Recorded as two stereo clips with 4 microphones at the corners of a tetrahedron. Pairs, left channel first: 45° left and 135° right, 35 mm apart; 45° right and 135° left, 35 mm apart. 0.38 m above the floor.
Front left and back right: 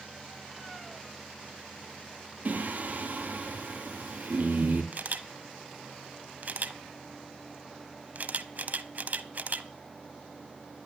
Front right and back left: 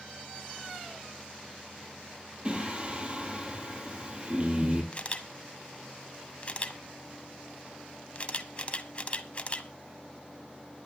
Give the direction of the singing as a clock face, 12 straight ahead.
6 o'clock.